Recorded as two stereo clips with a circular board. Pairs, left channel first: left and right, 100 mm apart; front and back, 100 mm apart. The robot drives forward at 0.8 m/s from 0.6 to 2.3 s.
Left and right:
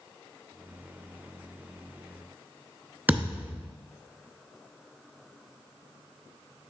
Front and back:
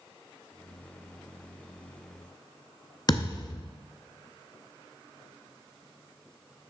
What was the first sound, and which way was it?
A thud, 25° right.